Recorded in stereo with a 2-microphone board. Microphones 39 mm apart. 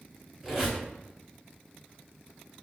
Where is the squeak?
10° right (ahead or behind), 1.4 m.